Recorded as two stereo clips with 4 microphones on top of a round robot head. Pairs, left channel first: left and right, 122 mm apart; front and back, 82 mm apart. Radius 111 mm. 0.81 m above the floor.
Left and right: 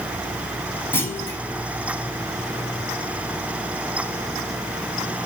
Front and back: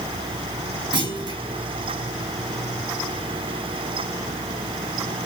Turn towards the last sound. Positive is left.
turn(degrees=160)